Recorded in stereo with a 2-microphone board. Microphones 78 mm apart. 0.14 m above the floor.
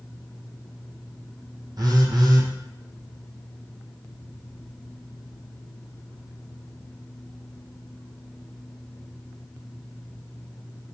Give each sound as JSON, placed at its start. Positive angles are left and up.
{"t": 1.8, "sound": "a phone buzzing", "side_deg": -55, "distance_m": 0.8}